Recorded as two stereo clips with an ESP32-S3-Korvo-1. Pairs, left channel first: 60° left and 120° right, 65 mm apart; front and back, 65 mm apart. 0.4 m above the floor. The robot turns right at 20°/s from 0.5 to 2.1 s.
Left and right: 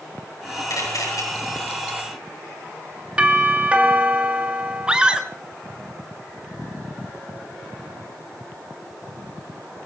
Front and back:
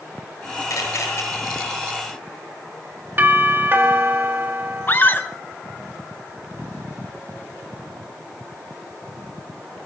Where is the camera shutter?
35° left, 9 m; by 1.2 s 45° left, 9 m.